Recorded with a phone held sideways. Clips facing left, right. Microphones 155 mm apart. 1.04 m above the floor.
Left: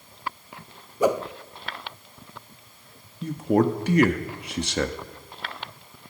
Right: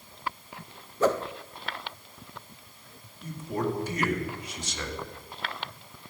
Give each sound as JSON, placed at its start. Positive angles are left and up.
{"t": 1.0, "sound": "a whoosh", "side_deg": 15, "distance_m": 0.6}
{"t": 3.2, "sound": "a man speaking", "side_deg": 70, "distance_m": 1.7}